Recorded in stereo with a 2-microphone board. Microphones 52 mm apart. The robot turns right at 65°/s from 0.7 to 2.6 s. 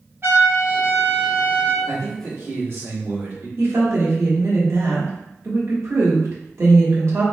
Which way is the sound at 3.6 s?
60° right (ahead or behind).